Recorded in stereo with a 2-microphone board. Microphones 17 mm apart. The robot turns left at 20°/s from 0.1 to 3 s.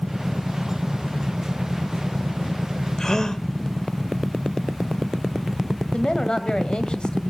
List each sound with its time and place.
3.0 s a gasp: 30° left (ahead or behind), 1.3 m
5.9 s a woman speaking: 55° left (ahead or behind), 1.8 m